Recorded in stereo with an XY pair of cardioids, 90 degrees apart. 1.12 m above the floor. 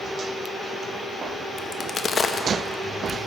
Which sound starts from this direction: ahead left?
A crack, at 1.6 s.